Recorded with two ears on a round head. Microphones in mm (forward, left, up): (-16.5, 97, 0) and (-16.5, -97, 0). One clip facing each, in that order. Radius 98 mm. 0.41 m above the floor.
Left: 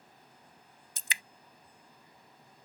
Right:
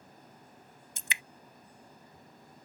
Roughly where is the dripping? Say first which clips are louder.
Right 1 dB; left.